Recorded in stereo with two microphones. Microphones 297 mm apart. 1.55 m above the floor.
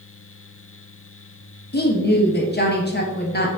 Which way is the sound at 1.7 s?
35° left (ahead or behind).